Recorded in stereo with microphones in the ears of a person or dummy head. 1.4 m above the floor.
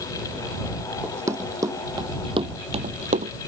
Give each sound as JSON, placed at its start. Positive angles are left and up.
{"t": 1.0, "sound": "running footsteps", "side_deg": -15}